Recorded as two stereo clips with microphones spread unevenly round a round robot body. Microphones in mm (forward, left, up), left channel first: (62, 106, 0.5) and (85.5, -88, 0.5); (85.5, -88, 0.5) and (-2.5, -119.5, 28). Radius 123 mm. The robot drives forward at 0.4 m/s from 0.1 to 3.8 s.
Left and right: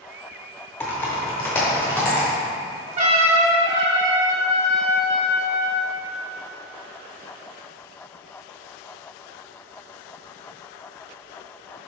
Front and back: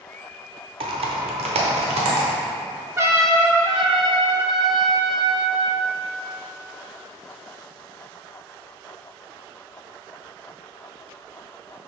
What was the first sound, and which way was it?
Typing on a keyboard, 175° left.